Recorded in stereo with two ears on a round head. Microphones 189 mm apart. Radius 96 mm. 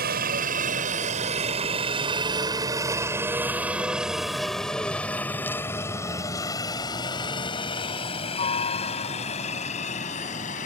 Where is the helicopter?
45° right (ahead or behind); by 10.7 s 35° left (ahead or behind).